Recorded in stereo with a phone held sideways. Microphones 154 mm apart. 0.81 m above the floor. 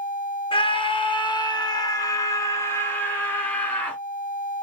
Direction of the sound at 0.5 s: 35° left (ahead or behind).